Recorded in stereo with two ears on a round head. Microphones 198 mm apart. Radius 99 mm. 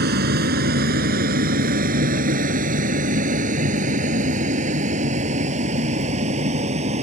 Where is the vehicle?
45° right (ahead or behind); by 7.0 s 30° right (ahead or behind).